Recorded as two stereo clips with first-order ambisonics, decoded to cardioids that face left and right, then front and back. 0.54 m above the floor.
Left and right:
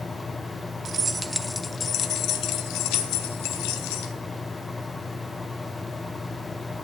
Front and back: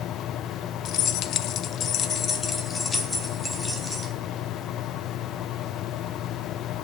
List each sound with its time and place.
0.8 s keys jangling: 30° right, 0.7 m; by 4.1 s 85° left, 1.5 m